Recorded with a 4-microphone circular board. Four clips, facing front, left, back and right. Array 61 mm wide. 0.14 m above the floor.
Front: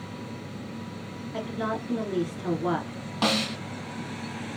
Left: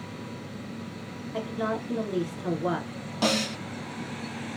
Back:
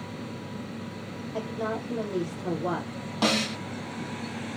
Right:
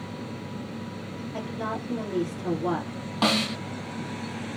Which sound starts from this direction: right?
A snare drum, at 3.2 s.